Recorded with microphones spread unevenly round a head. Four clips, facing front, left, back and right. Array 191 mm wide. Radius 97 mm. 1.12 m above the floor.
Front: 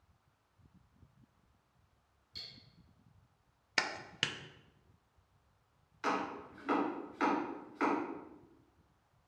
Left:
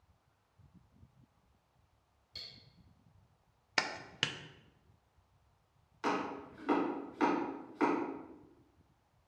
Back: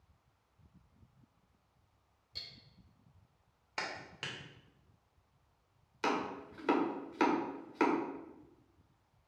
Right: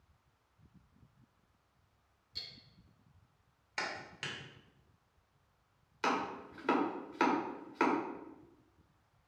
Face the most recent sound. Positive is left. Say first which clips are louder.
# right 1 dB, back 1 dB
turn(degrees=-160)